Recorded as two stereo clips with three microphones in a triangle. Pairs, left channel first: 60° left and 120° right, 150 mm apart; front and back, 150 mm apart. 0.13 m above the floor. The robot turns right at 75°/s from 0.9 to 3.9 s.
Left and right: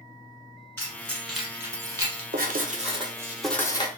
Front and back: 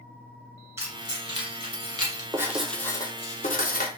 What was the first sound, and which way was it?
Keys jangling, 120° left.